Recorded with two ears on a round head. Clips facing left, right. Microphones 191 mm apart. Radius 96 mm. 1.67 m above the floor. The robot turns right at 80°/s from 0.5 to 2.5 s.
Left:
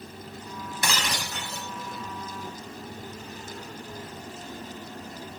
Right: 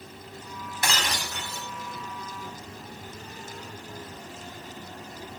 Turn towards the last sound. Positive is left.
turn(degrees=-145)